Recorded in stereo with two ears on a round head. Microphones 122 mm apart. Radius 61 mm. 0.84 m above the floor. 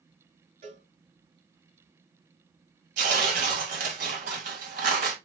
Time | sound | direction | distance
0.6 | a cowbell | 60° right (ahead or behind) | 4 m
3.0 | tearing paper | 65° right (ahead or behind) | 1.9 m